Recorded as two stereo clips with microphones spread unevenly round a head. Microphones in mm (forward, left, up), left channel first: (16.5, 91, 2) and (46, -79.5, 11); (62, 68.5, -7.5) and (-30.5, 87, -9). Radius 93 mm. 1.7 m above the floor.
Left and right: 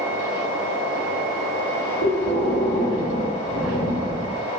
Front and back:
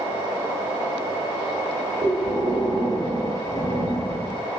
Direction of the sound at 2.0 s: 115° right.